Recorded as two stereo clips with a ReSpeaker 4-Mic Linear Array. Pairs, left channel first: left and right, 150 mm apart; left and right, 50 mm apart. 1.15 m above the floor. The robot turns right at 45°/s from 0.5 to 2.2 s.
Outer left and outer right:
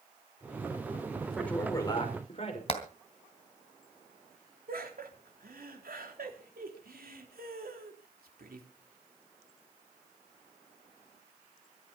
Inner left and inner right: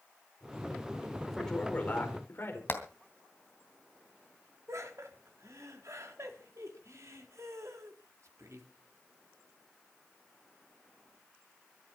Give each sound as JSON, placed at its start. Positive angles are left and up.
{"t": 1.3, "sound": "a man speaking", "azimuth_deg": 0, "distance_m": 5.0}
{"t": 2.7, "sound": "hammering", "side_deg": 40, "distance_m": 3.0}
{"t": 4.7, "sound": "laughter", "side_deg": -80, "distance_m": 3.5}